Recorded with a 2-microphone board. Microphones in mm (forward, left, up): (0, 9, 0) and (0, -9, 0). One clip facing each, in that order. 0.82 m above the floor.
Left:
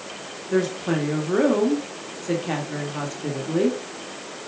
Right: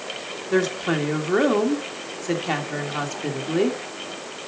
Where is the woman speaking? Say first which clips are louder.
Right 1 dB; 25° right (ahead or behind), 1.5 m.